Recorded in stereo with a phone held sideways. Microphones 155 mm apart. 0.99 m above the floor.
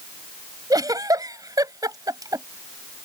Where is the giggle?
25° right (ahead or behind).